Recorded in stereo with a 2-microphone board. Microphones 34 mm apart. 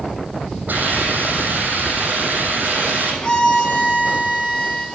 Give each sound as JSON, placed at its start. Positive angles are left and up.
{"t": 0.7, "sound": "a hiss", "side_deg": -65, "distance_m": 7.0}
{"t": 3.2, "sound": "a violin", "side_deg": 30, "distance_m": 4.5}